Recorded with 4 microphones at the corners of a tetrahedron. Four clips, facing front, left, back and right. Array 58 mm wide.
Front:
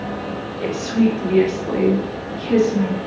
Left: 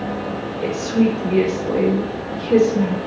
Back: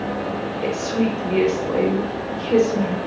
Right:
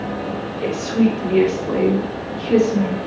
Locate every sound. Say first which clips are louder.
0.6 s a woman speaking: even, front 4 dB; 55° right, 3 m